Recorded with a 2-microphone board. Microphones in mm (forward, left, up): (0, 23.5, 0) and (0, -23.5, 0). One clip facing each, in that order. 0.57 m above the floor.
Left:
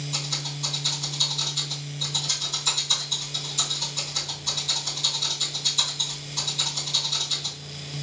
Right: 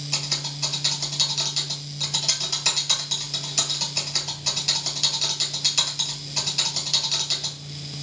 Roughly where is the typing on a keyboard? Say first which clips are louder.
Right 1 dB; right.